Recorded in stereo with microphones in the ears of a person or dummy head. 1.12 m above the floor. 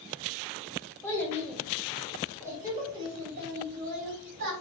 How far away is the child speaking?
About 1.8 m.